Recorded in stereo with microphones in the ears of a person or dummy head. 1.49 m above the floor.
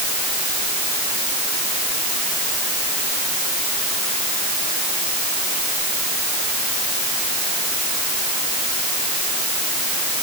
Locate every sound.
Only background noise.